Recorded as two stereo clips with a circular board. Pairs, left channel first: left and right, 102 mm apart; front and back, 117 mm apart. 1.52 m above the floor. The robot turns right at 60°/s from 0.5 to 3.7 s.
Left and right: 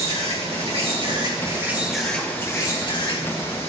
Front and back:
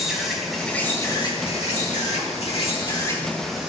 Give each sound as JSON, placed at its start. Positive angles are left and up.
{"t": 0.0, "sound": "an insect", "azimuth_deg": -90, "distance_m": 2.5}